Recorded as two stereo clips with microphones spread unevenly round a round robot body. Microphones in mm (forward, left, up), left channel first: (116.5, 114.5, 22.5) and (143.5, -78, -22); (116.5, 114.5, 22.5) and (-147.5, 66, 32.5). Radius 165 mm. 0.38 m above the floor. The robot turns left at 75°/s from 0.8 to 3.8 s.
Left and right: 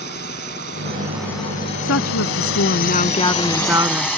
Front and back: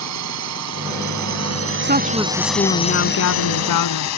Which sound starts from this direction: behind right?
A drone, at 0.0 s.